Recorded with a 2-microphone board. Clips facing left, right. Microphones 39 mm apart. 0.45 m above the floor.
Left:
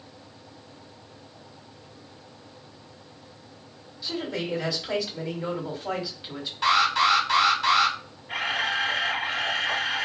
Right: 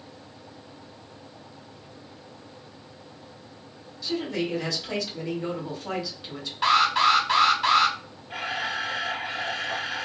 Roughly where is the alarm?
Centre.